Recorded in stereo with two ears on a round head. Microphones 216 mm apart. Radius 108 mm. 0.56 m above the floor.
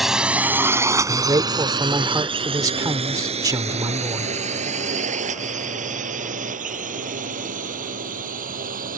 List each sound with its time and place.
0.0 s a drone: centre (ahead or behind); by 9.0 s 35° right (ahead or behind)
1.1 s a man speaking: 15° right (ahead or behind)